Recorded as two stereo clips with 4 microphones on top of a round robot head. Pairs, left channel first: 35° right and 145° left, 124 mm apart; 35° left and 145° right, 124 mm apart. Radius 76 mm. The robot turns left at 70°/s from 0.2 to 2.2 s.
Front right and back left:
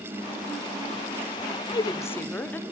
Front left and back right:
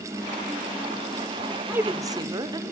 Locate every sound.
1.7 s a woman speaking: 70° right, 1.3 m; by 2.6 s 105° right, 1.3 m